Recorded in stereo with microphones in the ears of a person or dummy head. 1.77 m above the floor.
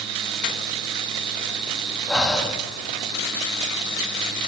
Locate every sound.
2.1 s breathing: 5° left (ahead or behind), 1.9 m